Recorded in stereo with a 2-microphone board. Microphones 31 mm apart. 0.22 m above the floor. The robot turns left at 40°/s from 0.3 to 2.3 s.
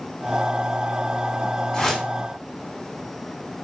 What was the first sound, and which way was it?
A whoosh, 20° left (ahead or behind).